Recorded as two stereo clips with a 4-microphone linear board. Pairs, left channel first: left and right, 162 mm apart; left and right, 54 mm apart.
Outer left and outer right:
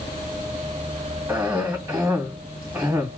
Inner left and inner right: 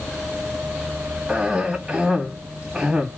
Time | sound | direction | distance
1.3 | a cough | 10° right (ahead or behind) | 2 m